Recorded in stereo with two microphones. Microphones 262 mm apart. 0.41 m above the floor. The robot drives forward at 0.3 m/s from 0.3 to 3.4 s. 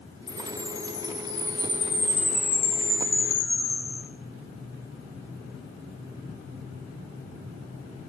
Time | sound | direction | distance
0.3 | a chime | 50° left (ahead or behind) | 2.5 m